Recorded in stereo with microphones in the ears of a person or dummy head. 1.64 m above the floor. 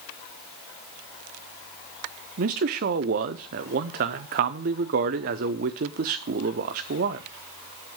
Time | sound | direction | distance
2.4 | a man speaking | 40° right (ahead or behind) | 0.6 m